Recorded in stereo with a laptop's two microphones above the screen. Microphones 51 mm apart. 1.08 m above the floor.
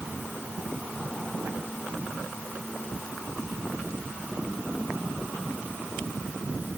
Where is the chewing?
I don't hear chewing.